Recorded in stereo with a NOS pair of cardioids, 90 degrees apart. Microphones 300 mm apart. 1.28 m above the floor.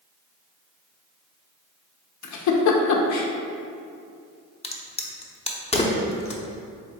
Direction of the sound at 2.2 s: 65° left.